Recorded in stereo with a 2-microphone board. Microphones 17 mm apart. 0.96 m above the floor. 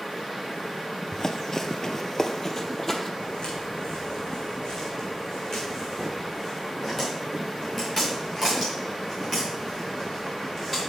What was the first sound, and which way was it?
Running footsteps, 30° left (ahead or behind).